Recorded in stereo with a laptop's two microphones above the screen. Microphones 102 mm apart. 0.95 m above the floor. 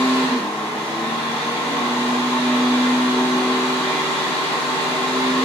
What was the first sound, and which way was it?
A fan, 80° left.